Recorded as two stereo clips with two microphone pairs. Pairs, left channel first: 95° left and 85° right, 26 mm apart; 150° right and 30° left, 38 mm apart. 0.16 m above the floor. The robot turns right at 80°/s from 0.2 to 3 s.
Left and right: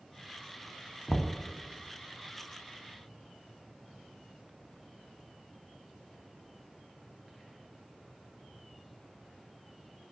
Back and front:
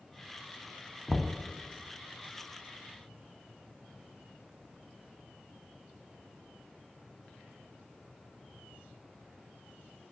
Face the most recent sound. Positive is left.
turn(degrees=-80)